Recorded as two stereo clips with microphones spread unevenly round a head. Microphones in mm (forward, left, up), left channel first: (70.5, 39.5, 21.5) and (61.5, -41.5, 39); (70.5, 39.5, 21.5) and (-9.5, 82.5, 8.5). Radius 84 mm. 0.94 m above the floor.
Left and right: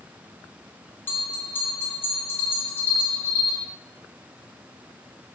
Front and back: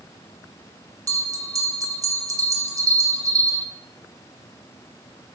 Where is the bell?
130° left, 0.5 m.